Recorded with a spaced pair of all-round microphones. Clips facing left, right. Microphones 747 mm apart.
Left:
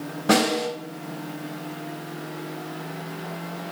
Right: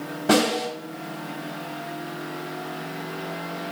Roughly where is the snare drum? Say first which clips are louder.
Right 1 dB; centre.